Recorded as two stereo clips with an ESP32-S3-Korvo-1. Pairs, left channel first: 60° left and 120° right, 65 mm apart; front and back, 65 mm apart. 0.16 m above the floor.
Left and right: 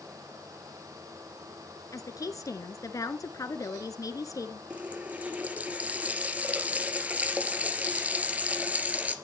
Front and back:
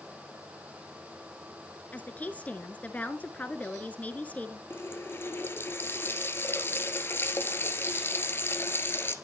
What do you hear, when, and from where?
1.9 s a woman speaking: 60° left, 1.8 m
4.7 s a running tap: 55° right, 2.0 m